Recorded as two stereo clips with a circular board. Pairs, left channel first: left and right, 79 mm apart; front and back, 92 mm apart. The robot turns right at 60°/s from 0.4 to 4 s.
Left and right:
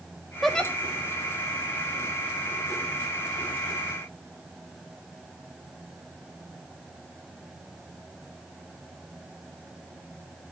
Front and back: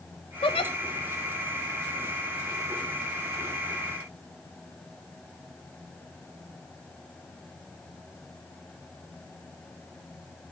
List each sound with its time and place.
0.4 s a giggle: straight ahead, 1.6 m; by 0.7 s 20° left, 1.6 m